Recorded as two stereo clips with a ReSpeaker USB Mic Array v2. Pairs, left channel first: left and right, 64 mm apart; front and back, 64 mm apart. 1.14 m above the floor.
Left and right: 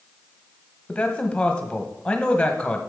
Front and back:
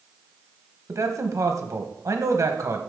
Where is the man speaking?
160° left, 1.2 m.